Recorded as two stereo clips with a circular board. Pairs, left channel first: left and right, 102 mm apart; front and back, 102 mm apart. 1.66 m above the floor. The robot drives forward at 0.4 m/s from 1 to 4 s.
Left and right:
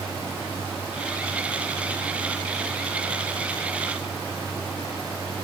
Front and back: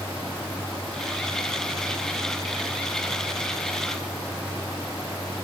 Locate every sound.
Only background noise.